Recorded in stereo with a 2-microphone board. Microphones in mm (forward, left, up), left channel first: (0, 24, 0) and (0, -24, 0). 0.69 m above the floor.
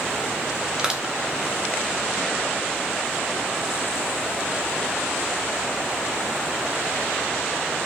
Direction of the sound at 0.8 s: 15° right (ahead or behind).